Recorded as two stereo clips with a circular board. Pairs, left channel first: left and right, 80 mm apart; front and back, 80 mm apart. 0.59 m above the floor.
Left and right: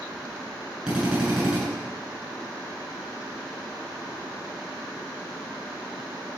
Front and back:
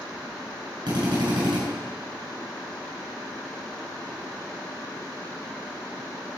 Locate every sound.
0.9 s a drill: 170° right, 8.5 m